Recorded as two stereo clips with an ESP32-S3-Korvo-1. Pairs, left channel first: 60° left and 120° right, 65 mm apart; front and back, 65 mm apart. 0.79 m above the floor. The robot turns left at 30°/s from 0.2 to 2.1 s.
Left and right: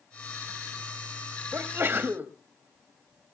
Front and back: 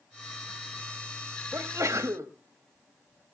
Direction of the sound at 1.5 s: 150° right.